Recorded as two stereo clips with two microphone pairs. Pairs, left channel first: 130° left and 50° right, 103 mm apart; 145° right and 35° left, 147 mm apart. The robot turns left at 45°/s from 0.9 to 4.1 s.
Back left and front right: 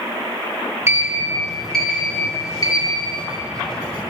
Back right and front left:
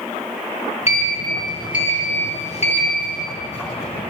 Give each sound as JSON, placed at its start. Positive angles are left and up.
{"t": 0.9, "sound": "a sliding door", "azimuth_deg": -105, "distance_m": 1.0}